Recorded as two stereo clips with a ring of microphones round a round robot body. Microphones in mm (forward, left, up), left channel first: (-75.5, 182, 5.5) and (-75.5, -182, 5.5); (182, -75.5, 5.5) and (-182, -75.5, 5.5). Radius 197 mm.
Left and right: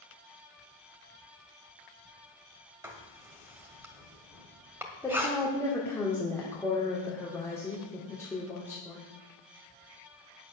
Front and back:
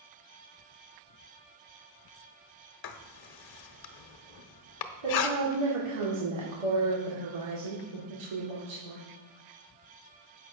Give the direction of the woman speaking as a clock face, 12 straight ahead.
6 o'clock.